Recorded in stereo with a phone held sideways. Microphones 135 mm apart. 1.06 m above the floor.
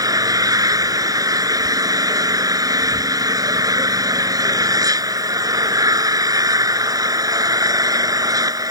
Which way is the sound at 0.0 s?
25° right (ahead or behind).